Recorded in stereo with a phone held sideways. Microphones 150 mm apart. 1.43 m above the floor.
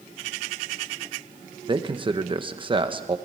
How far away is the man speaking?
About 1.2 m.